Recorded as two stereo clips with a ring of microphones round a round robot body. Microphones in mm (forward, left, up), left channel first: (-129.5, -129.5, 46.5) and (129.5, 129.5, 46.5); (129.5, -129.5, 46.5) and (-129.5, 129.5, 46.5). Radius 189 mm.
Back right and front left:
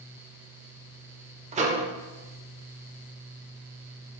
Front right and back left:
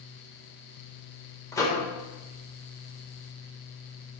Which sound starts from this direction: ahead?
A microwave, at 1.5 s.